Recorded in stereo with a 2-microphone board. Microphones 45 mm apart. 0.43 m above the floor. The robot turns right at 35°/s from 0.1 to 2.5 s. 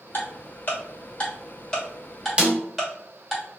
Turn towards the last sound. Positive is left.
turn(degrees=-25)  # may be behind; listen again after turning